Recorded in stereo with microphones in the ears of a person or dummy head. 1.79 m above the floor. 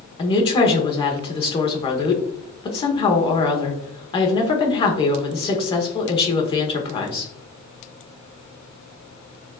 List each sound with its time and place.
0.2 s a woman speaking: 30° left (ahead or behind), 0.9 m